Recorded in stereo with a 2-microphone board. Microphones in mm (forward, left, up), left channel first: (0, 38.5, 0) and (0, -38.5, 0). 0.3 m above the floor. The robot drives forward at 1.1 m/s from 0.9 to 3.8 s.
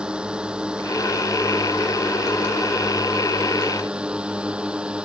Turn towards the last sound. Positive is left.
turn(degrees=-15)  # may be behind; listen again after turning